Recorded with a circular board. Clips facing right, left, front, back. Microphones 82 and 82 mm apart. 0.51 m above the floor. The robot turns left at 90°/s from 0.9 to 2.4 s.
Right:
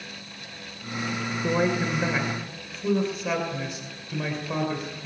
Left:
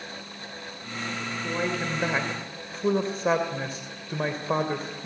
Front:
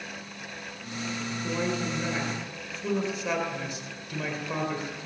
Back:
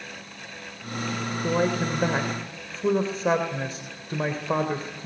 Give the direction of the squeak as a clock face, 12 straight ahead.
I don't hear a squeak.